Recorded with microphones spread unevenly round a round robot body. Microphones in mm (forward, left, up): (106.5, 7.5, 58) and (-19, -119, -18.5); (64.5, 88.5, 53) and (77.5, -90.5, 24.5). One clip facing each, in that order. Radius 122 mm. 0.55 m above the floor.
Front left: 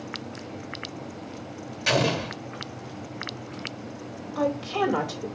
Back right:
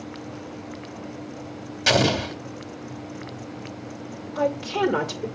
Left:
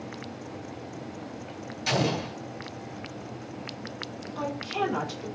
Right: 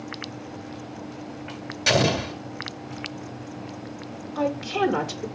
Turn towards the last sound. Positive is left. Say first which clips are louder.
# back right 2 dB, right 7 dB
turn(degrees=-90)